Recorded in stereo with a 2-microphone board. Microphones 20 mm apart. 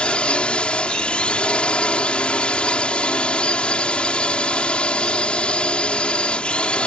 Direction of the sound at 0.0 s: 70° left (ahead or behind).